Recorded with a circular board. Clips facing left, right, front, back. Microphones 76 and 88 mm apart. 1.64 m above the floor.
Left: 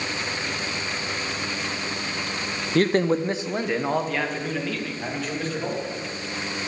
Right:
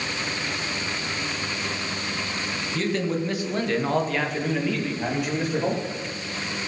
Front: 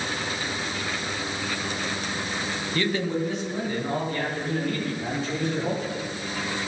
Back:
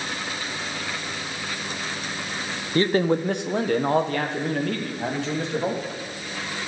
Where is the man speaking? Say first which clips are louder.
Left 6 dB, back 6 dB; 120° left, 0.9 m; by 5.8 s 165° right, 3 m.